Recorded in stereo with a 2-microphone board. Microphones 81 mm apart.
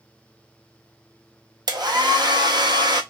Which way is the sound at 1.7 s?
60° right (ahead or behind).